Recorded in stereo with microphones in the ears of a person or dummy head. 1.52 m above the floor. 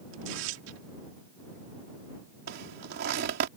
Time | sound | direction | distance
0.1 | tearing paper | 85° right | ?
2.5 | a zipper | 65° right (ahead or behind) | ?